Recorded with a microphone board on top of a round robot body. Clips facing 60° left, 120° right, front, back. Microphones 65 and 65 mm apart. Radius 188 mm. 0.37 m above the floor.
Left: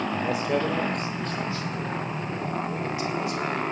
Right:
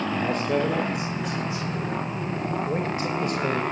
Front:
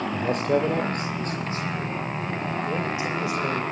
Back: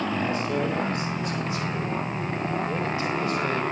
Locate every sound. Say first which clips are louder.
0.1 s a man speaking: right 2 dB, front 3 dB; 20° right, 2 m; by 3.6 s 80° right, 3 m